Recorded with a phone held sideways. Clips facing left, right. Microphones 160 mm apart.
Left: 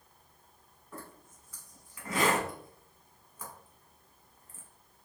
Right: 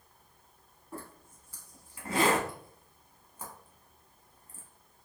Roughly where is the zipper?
Right.